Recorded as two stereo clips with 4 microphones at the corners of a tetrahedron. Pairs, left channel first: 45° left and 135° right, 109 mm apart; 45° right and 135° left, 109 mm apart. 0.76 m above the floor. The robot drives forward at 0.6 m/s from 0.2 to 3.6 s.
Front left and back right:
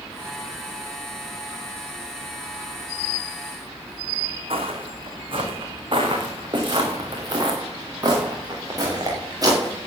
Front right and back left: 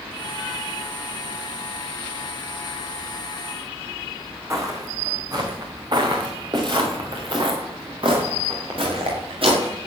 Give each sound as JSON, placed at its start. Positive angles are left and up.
{"t": 4.5, "sound": "footsteps", "azimuth_deg": -165, "distance_m": 3.5}